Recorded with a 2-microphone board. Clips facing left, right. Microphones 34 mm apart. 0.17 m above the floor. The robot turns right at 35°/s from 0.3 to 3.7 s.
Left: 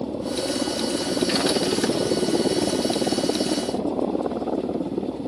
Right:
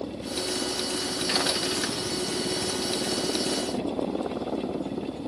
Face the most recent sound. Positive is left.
turn(degrees=155)